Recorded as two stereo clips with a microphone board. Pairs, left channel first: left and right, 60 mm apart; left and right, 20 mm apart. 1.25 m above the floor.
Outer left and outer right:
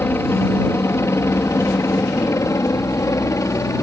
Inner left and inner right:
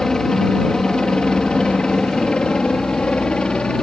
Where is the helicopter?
45° left (ahead or behind); by 3.8 s 65° left (ahead or behind).